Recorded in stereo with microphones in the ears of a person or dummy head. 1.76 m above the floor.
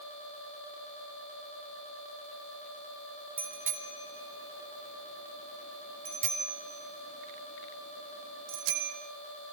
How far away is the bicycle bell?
About 4.5 m.